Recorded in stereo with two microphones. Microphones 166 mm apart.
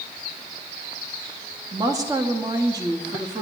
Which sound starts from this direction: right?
A woman speaking, at 1.7 s.